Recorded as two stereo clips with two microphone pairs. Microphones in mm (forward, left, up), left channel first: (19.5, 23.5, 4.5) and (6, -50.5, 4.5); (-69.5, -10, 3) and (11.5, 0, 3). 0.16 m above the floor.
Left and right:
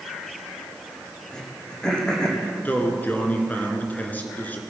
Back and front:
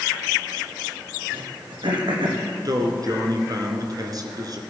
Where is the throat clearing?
Straight ahead, 3 m.